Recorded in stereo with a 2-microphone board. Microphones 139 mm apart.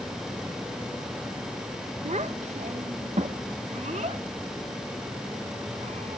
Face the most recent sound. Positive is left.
turn(degrees=-55)  # may be behind; listen again after turning